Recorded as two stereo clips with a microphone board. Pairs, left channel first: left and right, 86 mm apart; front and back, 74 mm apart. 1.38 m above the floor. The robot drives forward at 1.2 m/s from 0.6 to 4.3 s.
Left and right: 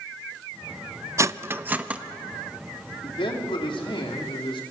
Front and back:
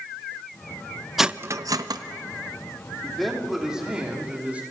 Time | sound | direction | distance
1.2 | cutlery clinking | 90° right | 0.5 m
3.0 | a man speaking | 85° left | 3.5 m